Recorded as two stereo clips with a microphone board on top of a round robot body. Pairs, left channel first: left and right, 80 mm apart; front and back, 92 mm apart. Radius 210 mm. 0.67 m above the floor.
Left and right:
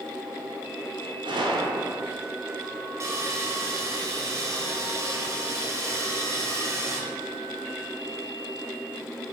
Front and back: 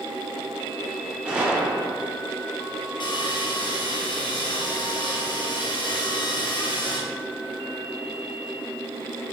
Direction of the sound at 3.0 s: 35° right.